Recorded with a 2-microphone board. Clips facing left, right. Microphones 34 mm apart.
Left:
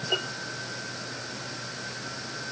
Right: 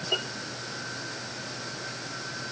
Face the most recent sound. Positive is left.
No sound to turn to.